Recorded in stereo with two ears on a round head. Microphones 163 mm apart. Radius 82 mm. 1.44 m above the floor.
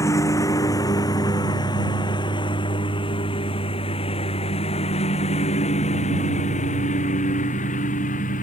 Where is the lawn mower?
15° left (ahead or behind); by 8.4 s 45° left (ahead or behind).